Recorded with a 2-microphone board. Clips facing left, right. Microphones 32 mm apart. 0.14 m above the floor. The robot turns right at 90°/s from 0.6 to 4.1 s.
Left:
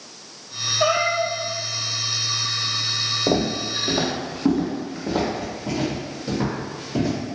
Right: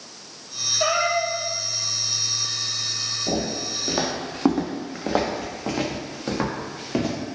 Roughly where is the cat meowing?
Ahead.